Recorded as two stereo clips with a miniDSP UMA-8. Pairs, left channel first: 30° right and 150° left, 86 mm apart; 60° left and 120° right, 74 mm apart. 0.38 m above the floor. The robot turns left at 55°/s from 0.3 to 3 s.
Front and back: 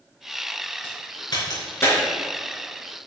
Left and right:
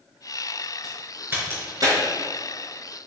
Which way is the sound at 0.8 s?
35° right.